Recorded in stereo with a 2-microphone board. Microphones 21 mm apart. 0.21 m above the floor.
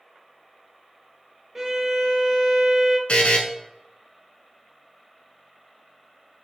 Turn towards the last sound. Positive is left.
turn(degrees=70)  # may be behind; listen again after turning